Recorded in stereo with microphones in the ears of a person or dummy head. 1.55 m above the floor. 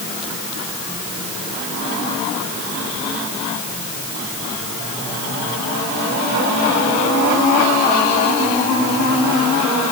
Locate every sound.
Only background noise.